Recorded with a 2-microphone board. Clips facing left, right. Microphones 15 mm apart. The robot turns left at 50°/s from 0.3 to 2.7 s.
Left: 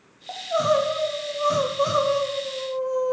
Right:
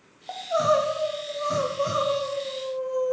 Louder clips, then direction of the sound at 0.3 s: Left 1 dB; 165° right.